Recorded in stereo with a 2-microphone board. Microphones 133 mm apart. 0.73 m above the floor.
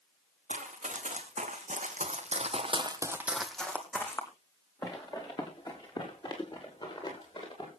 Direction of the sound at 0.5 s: 65° right (ahead or behind).